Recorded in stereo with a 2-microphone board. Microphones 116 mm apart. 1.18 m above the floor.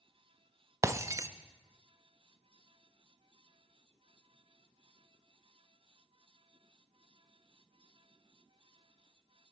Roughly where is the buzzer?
I don't hear a buzzer.